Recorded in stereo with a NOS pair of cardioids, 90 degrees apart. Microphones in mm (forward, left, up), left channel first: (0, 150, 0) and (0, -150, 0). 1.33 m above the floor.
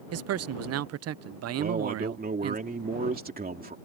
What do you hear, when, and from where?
0.1 s a man speaking: 55° right
1.6 s a man speaking: 30° right